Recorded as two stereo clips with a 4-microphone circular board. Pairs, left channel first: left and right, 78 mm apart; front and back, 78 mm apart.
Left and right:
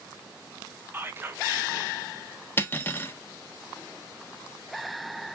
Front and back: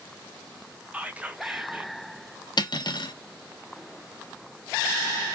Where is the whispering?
125° right, 0.9 m.